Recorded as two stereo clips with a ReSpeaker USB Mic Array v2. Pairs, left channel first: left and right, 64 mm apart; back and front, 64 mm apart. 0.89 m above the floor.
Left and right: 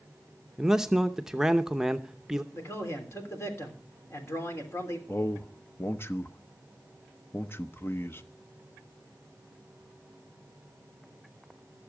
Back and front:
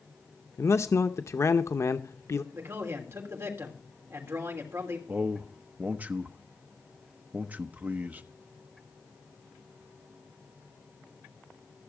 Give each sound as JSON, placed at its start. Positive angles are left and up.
{"t": 0.6, "sound": "a man speaking", "azimuth_deg": -170, "distance_m": 0.7}
{"t": 2.5, "sound": "a man speaking", "azimuth_deg": 45, "distance_m": 3.0}
{"t": 5.1, "sound": "a man speaking", "azimuth_deg": 55, "distance_m": 0.8}